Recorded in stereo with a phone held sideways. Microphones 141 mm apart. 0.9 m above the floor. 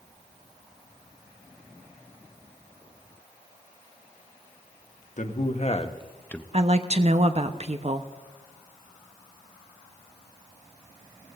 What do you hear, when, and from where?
5.2 s a man speaking: 60° left (ahead or behind), 1.5 m; by 6.4 s centre (ahead or behind), 0.7 m
6.5 s a woman speaking: 45° right (ahead or behind), 0.9 m